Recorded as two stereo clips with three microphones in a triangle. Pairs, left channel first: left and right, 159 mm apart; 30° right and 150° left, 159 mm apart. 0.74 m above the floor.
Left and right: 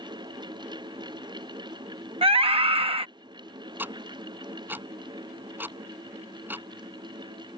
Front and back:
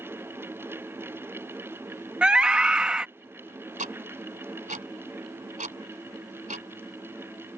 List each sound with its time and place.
2.2 s a scream: 125° right
3.8 s ticking: 170° right